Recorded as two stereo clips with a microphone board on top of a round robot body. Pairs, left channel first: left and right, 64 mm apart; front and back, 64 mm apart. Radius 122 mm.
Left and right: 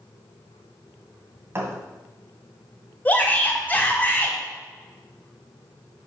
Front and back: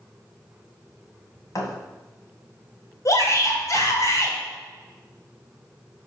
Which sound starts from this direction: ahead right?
A thud, at 1.6 s.